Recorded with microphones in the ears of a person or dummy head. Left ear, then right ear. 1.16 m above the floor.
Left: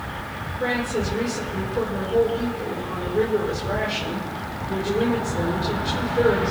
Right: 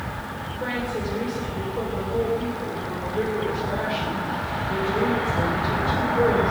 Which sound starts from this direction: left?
A woman speaking, at 0.6 s.